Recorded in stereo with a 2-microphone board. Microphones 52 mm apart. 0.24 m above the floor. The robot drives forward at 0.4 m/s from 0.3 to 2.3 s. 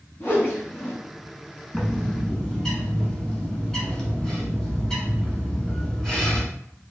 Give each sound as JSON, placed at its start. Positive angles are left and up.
{"t": 0.2, "sound": "a whoosh", "side_deg": 50, "distance_m": 1.4}
{"t": 1.7, "sound": "a bird", "side_deg": 15, "distance_m": 0.9}